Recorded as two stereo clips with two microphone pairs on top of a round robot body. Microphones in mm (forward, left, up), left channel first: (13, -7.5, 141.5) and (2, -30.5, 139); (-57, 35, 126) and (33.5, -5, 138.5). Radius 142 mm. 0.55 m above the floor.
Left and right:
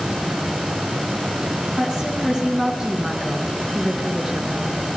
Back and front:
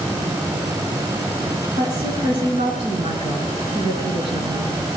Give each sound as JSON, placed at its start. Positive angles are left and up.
{"t": 1.8, "sound": "a woman speaking", "azimuth_deg": -60, "distance_m": 6.0}